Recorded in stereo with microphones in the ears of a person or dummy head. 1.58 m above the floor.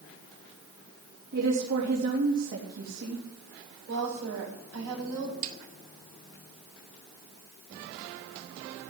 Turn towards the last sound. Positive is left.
turn(degrees=-45)  # may be behind; listen again after turning